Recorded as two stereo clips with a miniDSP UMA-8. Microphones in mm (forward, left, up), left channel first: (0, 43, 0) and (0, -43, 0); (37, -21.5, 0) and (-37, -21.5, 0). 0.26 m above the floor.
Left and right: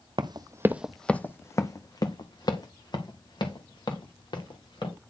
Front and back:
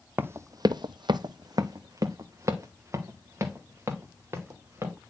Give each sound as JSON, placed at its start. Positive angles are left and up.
{"t": 0.2, "sound": "running footsteps", "azimuth_deg": -115, "distance_m": 0.7}